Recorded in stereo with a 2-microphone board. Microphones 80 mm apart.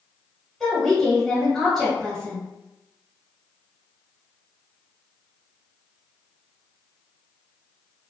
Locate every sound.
0.6 s a woman speaking: centre (ahead or behind), 1.4 m